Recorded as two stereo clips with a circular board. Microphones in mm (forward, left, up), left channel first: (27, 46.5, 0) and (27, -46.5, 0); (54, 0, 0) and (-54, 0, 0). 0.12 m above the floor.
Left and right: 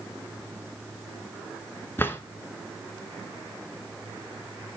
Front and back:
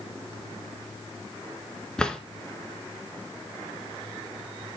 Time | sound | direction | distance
2.0 | a drawer | 75° left | 0.7 m